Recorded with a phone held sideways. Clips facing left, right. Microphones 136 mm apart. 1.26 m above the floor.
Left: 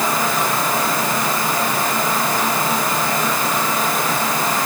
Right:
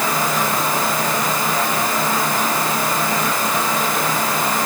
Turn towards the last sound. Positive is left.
No sound to turn to.